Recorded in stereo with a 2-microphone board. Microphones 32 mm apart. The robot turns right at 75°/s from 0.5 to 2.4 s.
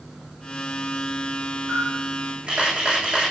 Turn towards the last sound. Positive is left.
turn(degrees=-30)